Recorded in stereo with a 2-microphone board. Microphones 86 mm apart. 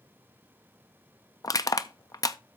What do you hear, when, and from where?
1.4 s crushing: 40° left (ahead or behind), 0.5 m